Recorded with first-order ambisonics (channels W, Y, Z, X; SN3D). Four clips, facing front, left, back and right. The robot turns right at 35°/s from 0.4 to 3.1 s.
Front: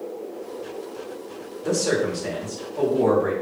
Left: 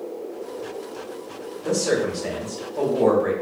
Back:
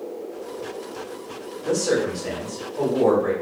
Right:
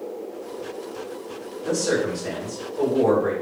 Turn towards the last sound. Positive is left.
turn(degrees=85)